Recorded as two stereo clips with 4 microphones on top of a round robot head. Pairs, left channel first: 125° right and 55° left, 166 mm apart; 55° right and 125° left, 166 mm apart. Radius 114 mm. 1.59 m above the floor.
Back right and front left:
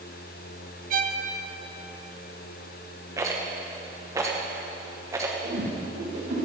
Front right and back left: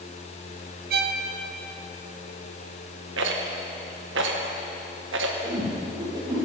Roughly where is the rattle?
Behind left.